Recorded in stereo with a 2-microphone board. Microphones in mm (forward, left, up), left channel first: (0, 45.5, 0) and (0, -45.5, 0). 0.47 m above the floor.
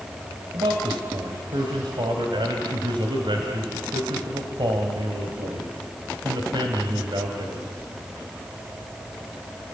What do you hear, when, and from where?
0.5 s a man speaking: 70° right (ahead or behind), 2.5 m